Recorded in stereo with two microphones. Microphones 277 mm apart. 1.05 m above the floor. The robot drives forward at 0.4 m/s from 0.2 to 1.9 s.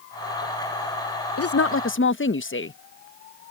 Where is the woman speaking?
60° left (ahead or behind); by 2.8 s 45° left (ahead or behind).